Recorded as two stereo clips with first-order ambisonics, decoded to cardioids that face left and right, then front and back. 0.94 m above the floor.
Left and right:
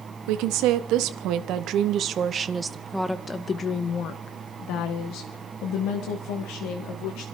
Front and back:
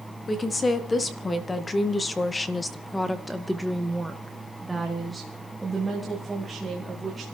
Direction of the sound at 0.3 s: 75° right.